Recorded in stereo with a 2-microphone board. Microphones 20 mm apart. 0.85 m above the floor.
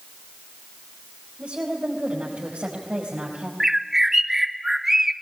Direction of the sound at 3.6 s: 25° right (ahead or behind).